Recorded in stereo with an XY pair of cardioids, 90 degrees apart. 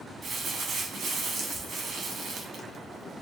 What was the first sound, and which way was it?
Crumpling, 70° right.